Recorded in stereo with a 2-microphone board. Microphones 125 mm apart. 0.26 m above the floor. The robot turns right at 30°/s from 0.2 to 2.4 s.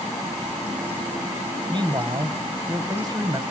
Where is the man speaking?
35° right (ahead or behind), 1.3 m; by 3.4 s 30° right (ahead or behind), 1.3 m.